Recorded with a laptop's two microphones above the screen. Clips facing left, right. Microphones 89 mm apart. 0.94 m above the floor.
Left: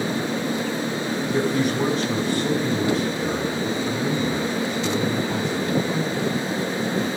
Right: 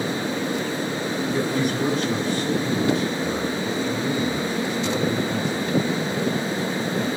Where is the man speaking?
75° left (ahead or behind), 6 m.